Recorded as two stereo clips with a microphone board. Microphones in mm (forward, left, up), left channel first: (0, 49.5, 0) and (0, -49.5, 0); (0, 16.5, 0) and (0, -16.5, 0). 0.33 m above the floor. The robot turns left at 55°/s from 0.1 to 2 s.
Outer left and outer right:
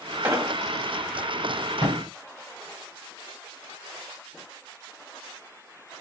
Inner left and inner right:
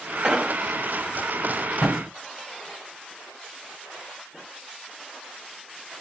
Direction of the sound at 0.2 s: 20° right (ahead or behind).